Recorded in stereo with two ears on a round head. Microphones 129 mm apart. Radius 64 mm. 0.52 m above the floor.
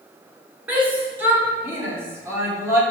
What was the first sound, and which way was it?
A shout, 10° right (ahead or behind).